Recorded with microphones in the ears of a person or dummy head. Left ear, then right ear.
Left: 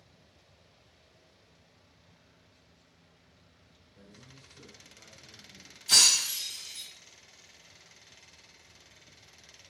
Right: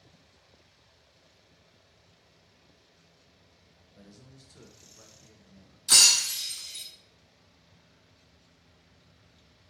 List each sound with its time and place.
4.0 s a man speaking: 70° right (ahead or behind), 1.1 m; by 5.8 s 10° left (ahead or behind), 0.6 m
5.9 s breaking glass: 55° right (ahead or behind), 1.8 m